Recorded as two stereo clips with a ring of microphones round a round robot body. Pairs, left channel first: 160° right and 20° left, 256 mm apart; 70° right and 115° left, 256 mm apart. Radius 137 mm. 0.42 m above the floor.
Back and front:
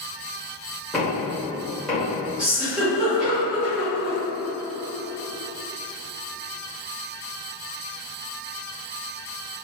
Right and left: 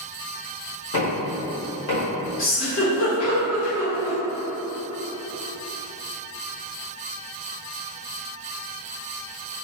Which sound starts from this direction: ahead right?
A giggle, at 2.4 s.